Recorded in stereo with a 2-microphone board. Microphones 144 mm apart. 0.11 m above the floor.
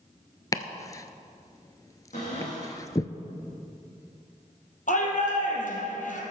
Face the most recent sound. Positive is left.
turn(degrees=65)  # may be behind; listen again after turning